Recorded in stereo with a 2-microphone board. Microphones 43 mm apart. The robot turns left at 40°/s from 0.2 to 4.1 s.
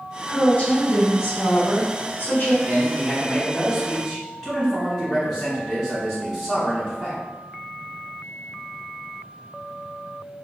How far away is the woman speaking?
About 1.1 m.